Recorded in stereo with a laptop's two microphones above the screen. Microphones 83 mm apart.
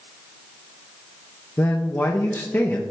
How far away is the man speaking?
About 0.6 m.